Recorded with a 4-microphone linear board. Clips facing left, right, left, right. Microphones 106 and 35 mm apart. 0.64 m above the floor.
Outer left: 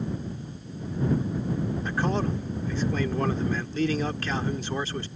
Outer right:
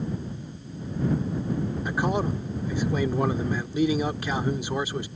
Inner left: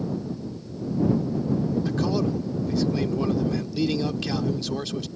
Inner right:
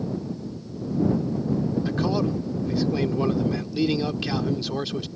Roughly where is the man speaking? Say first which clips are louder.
Outer right 2 dB, even; centre.